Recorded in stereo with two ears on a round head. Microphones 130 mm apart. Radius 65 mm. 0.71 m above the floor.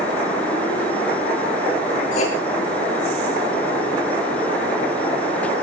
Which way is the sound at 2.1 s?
50° left (ahead or behind).